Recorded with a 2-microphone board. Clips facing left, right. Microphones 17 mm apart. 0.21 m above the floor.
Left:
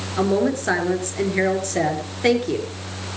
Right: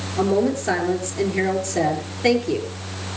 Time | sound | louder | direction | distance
0.2 | a woman speaking | even | 30° left (ahead or behind) | 4 m